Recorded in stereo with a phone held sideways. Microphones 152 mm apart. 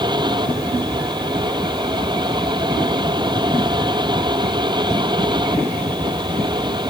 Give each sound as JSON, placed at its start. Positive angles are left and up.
{"t": 0.0, "sound": "a fan", "side_deg": -30}